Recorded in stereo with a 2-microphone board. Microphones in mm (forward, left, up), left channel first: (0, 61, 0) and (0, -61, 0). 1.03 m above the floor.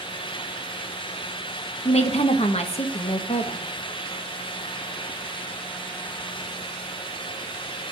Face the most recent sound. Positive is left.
turn(degrees=60)  # may be behind; listen again after turning